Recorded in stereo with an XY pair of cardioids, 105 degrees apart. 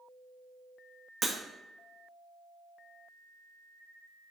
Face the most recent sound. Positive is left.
turn(degrees=-40)